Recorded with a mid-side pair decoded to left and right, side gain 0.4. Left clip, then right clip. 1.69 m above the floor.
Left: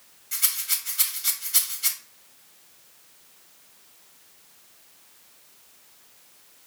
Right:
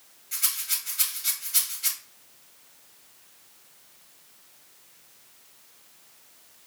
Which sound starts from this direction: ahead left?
A rattle, at 0.3 s.